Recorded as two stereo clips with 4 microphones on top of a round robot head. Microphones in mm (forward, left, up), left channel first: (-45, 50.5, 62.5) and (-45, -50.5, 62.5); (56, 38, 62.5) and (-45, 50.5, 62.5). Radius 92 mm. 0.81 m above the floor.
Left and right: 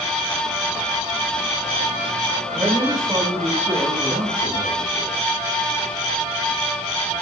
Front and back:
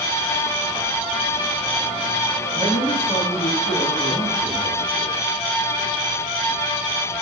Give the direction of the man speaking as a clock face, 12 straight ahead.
12 o'clock.